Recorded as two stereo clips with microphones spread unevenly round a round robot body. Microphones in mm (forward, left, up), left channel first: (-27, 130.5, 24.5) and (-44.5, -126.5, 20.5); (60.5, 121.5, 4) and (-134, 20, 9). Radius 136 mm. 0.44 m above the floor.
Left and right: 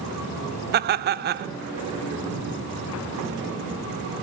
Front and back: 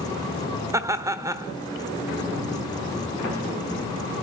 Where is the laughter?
80° right, 1.0 m.